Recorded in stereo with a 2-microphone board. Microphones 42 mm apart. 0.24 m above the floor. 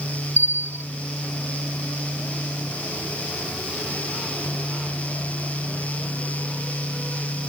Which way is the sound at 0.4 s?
70° right (ahead or behind).